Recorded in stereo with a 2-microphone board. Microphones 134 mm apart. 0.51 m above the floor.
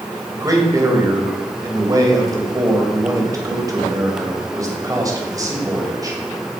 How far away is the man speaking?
About 2.5 m.